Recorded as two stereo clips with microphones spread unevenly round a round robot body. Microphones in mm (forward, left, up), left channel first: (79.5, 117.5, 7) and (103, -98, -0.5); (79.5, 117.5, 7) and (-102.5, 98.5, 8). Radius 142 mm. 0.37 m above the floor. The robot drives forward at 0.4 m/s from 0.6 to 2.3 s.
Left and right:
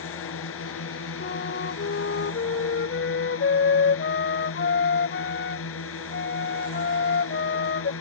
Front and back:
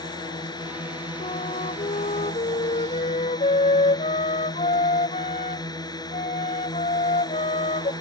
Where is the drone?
75° left.